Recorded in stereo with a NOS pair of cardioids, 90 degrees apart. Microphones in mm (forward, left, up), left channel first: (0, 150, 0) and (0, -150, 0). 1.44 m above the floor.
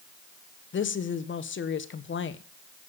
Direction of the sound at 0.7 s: 40° left.